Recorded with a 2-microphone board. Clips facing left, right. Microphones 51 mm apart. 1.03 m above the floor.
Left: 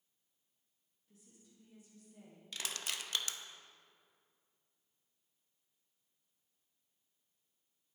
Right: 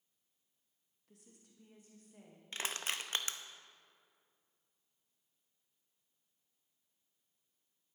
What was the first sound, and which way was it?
A woman speaking, 65° right (ahead or behind).